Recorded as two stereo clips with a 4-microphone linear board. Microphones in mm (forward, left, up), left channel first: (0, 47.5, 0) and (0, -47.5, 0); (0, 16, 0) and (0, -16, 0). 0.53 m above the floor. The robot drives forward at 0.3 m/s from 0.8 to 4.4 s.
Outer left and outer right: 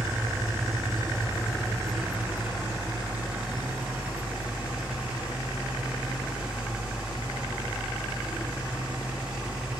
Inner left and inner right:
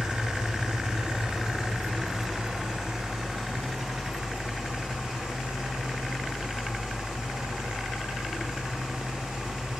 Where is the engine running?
30° right (ahead or behind), 2 m; by 9.8 s 20° right (ahead or behind), 3 m.